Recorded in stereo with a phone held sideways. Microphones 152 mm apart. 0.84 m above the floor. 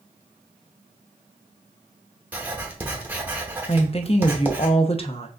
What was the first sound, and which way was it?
Writing, 10° right (ahead or behind).